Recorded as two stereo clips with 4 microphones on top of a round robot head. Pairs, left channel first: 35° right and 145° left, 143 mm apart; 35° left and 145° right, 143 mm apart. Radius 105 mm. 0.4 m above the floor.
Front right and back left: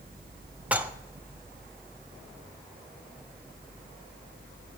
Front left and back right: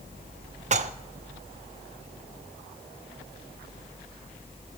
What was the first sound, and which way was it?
Dishes clattering, 140° right.